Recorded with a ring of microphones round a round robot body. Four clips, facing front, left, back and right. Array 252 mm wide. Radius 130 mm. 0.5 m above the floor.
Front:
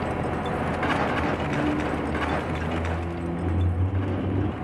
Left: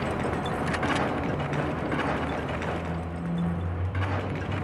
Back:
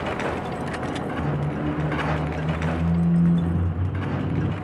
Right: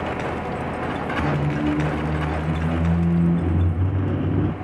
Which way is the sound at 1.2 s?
110° right.